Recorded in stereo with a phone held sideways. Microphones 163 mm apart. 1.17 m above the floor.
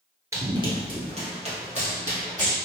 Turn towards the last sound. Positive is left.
turn(degrees=-50)  # may be behind; listen again after turning